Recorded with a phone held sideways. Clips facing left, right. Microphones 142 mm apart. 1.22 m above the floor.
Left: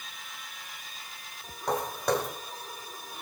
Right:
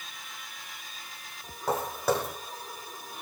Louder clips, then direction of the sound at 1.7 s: Even; 5° right (ahead or behind).